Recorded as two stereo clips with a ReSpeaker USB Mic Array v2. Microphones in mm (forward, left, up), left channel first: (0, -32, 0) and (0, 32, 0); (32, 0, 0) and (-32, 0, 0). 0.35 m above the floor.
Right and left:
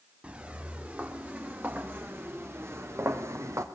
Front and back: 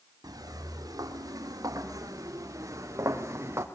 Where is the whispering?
I don't hear whispering.